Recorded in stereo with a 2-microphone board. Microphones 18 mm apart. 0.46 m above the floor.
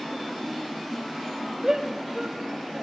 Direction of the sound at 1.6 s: 35° right (ahead or behind).